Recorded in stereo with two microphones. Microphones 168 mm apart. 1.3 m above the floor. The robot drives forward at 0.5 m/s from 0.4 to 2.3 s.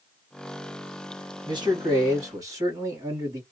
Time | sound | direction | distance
1.5 | a man speaking | 25° right (ahead or behind) | 1.4 m